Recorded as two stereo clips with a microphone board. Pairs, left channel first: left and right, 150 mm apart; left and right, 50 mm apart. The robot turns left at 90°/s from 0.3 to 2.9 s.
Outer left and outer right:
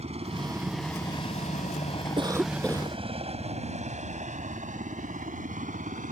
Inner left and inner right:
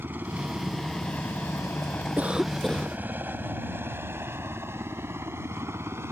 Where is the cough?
145° right; by 3.0 s 150° left.